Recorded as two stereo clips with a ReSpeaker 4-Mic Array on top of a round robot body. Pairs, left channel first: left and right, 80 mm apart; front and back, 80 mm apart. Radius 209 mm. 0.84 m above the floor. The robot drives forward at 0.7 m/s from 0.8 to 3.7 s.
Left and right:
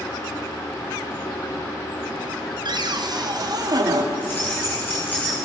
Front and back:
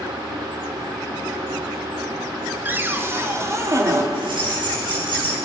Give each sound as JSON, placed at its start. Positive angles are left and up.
{"t": 2.6, "sound": "a cupboard door", "azimuth_deg": -115, "distance_m": 2.5}
{"t": 4.1, "sound": "keys jangling", "azimuth_deg": 155, "distance_m": 10.0}